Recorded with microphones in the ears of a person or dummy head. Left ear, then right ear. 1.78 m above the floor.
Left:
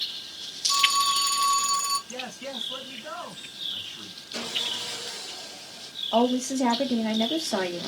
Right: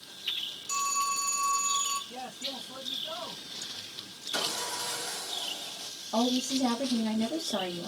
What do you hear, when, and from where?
0.7 s a phone ringing: 60° left (ahead or behind), 1.3 m
2.1 s a man speaking: 60° left (ahead or behind), 1.7 m
4.3 s sawing: 45° right (ahead or behind), 0.9 m
6.1 s a woman speaking: 35° left (ahead or behind), 0.7 m